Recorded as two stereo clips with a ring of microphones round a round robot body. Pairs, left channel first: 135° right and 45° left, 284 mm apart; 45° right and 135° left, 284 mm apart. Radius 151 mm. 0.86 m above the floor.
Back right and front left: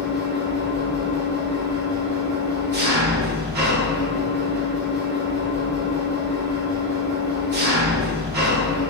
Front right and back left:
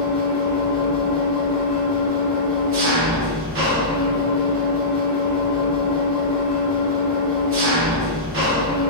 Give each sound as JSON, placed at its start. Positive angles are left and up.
{"t": 0.0, "sound": "an engine running", "azimuth_deg": 95, "distance_m": 1.1}